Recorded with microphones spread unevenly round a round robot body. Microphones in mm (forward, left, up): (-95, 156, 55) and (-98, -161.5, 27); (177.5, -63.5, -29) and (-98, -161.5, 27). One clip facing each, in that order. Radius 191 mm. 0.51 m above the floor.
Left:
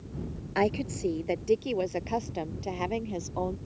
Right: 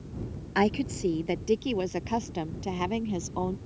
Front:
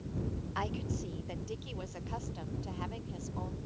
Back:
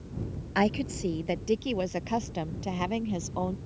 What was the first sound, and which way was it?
A woman speaking, 155° right.